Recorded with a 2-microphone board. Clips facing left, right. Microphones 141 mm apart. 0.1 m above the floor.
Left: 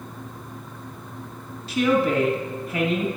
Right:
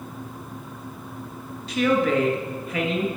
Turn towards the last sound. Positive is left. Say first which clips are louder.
# even
turn(degrees=5)  # may be behind; listen again after turning